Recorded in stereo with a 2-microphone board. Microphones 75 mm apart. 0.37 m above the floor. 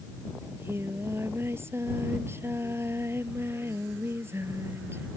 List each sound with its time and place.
0.4 s singing: 35° right (ahead or behind)